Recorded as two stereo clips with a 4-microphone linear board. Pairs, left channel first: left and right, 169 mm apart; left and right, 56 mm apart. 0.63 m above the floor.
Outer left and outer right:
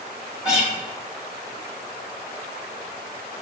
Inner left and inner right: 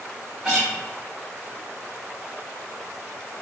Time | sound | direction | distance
0.4 | a guitar | 5° right (ahead or behind) | 1.1 m